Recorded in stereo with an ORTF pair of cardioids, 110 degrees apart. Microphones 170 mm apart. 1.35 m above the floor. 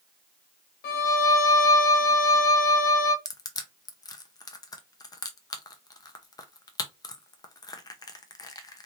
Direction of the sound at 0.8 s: 65° left.